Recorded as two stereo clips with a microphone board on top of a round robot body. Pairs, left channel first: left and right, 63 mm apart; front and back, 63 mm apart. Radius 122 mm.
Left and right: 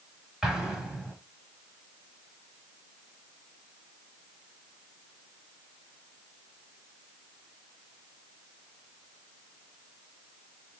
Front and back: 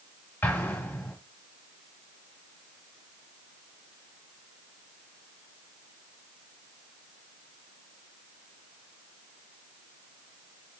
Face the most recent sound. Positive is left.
turn(degrees=-25)